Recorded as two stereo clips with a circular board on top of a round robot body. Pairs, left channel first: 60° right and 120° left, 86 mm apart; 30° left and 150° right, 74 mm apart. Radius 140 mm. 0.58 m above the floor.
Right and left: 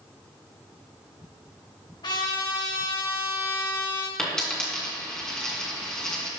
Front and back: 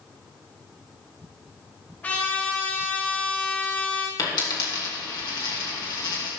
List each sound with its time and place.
2.0 s a trumpet: 35° right, 2.5 m
4.2 s a dropped coin: 20° left, 2.5 m